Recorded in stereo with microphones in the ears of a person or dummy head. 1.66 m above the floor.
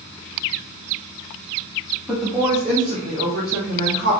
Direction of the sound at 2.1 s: 10° right (ahead or behind).